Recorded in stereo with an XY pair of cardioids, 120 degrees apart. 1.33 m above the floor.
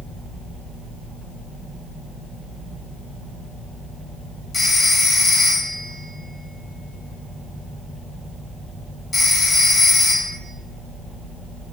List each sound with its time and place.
4.5 s a phone ringing: 25° left, 3.5 m